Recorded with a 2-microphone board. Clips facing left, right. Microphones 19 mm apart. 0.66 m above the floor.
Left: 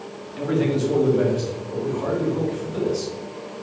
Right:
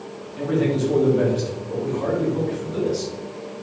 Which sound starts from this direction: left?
A man speaking, at 0.4 s.